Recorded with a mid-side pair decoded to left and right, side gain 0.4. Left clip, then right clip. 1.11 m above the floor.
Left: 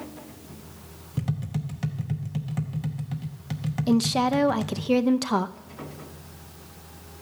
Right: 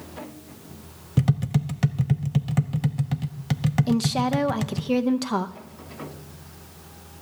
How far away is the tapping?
About 0.7 m.